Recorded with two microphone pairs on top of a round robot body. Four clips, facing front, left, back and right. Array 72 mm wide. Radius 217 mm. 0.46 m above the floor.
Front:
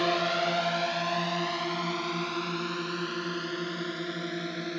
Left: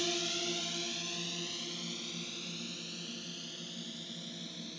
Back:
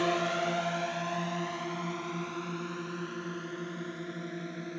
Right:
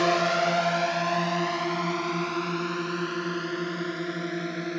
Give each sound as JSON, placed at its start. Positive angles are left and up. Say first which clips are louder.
{"t": 0.0, "sound": "a drone", "louder": "right 15 dB, front 2 dB", "azimuth_deg": -80}